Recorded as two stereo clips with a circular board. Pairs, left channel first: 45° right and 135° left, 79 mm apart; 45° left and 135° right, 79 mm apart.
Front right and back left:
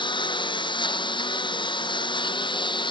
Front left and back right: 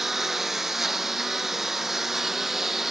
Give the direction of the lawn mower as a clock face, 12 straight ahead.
2 o'clock.